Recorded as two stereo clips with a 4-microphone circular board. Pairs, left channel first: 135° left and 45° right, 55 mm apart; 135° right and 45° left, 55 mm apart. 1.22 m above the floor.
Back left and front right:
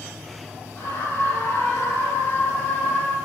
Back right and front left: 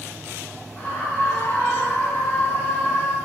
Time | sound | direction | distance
0.8 | a scream | 160° left | 7 m